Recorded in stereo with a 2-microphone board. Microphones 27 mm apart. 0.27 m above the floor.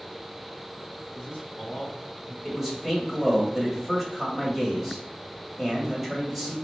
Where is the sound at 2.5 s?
10° right (ahead or behind), 1.1 m.